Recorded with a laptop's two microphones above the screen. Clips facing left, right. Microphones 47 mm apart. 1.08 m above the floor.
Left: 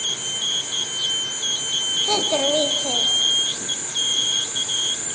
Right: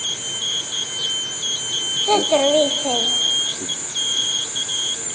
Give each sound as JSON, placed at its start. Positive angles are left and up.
{"t": 2.1, "sound": "a child speaking", "side_deg": -25, "distance_m": 1.1}